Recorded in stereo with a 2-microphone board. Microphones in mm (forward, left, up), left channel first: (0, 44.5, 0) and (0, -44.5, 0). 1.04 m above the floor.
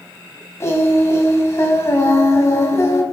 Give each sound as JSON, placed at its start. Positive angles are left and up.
{"t": 0.6, "sound": "singing", "side_deg": 30, "distance_m": 3.0}